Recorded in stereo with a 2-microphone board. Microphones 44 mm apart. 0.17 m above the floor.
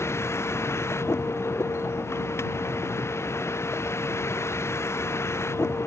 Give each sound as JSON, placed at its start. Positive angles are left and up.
{"t": 0.0, "sound": "a vehicle", "side_deg": 85}